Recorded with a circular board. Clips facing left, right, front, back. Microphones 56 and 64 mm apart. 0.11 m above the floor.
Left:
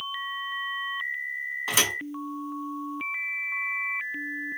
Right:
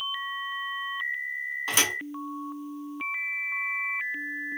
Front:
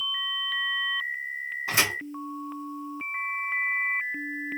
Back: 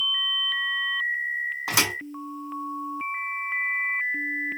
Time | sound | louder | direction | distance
1.7 | a thud | left 1 dB, even | straight behind | 1.6 m